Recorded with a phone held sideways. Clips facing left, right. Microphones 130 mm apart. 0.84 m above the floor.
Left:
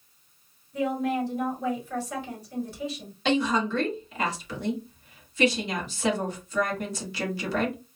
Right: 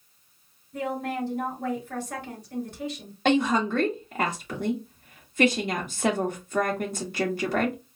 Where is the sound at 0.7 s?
55° right (ahead or behind), 3 m.